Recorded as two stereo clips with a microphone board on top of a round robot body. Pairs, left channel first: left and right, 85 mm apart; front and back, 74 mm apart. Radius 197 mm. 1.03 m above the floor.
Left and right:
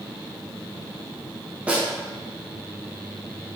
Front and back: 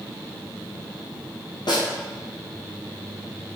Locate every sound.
1.7 s a snare drum: 15° right, 1.2 m